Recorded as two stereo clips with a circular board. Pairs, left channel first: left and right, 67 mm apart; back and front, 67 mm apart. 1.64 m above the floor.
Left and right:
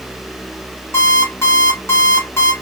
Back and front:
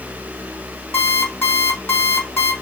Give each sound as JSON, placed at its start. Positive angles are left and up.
{"t": 0.9, "sound": "an alarm clock", "azimuth_deg": 130, "distance_m": 1.4}